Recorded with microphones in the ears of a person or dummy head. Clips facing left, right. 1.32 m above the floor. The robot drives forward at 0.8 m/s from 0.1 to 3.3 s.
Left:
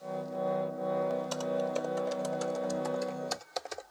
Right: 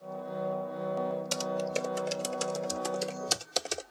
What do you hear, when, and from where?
1.3 s typing on a keyboard: 30° right (ahead or behind); by 3.9 s 45° right (ahead or behind)